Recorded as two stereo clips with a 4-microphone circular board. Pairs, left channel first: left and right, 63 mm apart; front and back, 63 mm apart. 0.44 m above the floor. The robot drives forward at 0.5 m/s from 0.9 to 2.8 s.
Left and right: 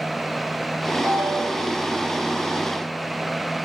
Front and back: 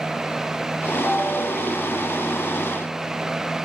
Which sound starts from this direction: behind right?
A ringtone, at 1.0 s.